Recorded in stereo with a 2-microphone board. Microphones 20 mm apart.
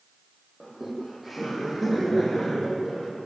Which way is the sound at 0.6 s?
10° right (ahead or behind).